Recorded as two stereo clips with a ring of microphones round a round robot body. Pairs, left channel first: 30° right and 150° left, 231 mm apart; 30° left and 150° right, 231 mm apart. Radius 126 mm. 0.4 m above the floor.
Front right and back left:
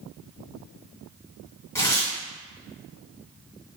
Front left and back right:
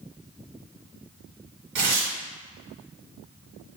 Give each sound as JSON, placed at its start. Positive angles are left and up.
{"t": 1.8, "sound": "tearing paper", "azimuth_deg": -110, "distance_m": 1.3}